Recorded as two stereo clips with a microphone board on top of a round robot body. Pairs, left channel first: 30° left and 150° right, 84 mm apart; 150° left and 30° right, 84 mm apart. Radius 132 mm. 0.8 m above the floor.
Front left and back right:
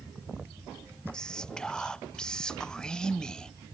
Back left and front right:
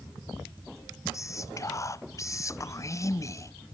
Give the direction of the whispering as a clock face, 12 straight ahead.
8 o'clock.